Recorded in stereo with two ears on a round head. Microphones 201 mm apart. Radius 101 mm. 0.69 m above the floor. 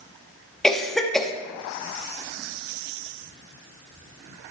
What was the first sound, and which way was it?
A cough, centre (ahead or behind).